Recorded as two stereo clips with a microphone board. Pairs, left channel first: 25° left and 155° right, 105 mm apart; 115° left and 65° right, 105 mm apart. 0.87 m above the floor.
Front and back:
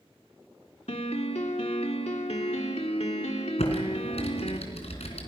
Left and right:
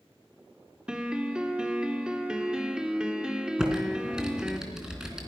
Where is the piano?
15° left, 1.9 m.